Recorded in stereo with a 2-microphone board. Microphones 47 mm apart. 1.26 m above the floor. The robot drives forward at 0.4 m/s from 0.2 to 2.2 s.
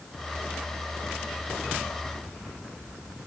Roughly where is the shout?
No shout in this recording.